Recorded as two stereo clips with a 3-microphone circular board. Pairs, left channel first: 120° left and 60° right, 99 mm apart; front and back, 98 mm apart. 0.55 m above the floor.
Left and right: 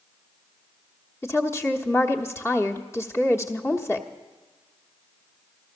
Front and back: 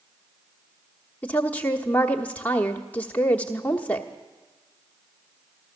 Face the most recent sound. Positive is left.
turn(degrees=70)